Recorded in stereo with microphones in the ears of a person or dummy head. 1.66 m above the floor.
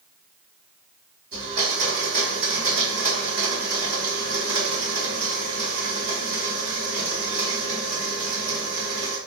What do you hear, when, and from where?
1.3 s a blender: 45° right (ahead or behind), 2.5 m